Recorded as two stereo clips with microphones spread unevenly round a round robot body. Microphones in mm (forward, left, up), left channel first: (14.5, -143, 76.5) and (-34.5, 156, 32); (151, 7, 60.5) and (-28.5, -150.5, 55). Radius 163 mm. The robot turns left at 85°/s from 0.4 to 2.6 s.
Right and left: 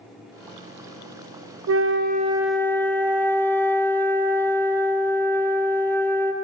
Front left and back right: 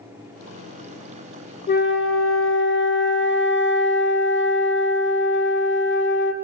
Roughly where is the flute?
Left.